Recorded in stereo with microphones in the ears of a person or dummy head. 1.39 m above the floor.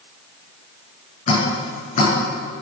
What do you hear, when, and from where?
1.3 s dripping: 40° left (ahead or behind), 7 m